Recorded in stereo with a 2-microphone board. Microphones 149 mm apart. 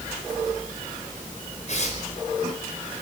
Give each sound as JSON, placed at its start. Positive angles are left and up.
{"t": 1.7, "sound": "tearing paper", "side_deg": 50, "distance_m": 5.0}